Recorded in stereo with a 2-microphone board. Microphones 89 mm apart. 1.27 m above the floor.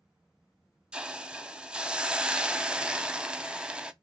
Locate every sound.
0.9 s a hiss: 10° right (ahead or behind), 0.5 m